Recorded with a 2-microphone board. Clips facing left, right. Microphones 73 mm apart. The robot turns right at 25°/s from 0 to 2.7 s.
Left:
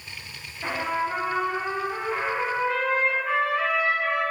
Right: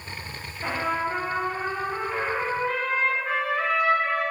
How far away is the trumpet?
About 0.8 m.